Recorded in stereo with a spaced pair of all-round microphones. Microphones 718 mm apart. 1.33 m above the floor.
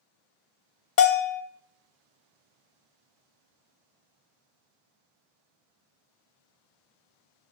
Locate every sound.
1.0 s a bell: 85° left, 0.7 m